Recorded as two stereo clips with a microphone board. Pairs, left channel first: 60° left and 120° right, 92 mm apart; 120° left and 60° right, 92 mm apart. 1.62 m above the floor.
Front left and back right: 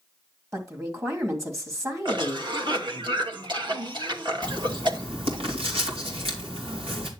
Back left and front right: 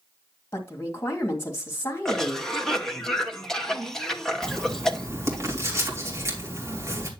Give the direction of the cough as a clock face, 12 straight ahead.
5 o'clock.